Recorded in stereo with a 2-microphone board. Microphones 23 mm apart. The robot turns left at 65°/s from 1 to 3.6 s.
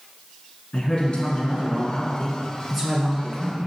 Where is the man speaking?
110° left, 1.6 m; by 3.7 s 60° right, 1.6 m.